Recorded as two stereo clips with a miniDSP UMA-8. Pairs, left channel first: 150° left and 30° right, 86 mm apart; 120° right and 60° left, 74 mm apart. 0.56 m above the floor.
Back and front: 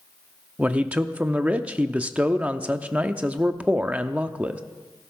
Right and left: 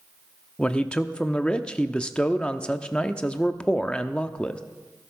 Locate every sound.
0.6 s a man speaking: 75° right, 0.6 m